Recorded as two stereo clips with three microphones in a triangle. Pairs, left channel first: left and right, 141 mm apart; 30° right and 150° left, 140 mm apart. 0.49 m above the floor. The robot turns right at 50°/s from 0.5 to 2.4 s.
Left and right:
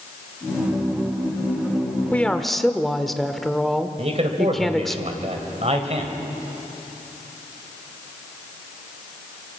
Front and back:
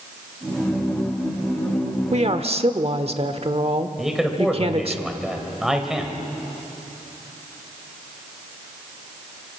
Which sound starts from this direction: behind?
A woman speaking, at 2.1 s.